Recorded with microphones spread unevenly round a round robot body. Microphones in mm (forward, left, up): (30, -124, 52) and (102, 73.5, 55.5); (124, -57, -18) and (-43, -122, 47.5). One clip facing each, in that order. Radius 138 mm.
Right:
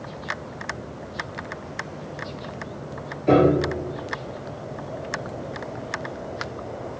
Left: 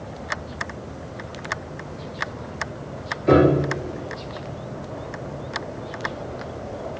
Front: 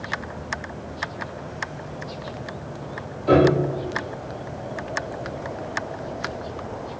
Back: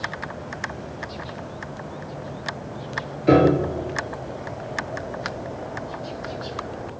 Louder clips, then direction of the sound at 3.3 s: Left 1 dB, back 1 dB; 155° left.